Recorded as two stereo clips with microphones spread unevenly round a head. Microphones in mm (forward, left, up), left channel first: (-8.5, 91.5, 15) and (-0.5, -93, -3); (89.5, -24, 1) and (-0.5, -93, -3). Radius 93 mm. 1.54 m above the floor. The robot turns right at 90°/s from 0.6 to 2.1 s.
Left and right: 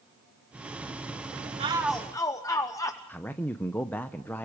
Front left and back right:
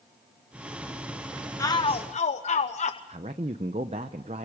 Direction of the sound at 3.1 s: 170° left.